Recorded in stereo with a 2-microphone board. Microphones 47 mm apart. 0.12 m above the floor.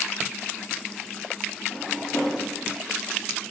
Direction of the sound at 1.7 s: 30° left (ahead or behind).